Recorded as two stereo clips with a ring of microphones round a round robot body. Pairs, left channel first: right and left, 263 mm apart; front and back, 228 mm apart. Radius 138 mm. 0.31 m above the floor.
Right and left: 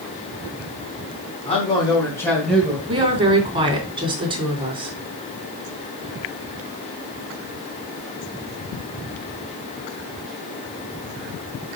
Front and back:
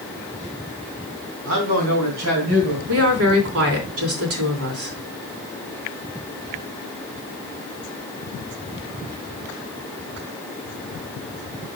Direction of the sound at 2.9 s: 165° left.